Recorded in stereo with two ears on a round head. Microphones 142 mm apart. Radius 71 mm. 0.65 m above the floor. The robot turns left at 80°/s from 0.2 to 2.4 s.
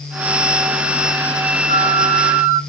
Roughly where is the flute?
Left.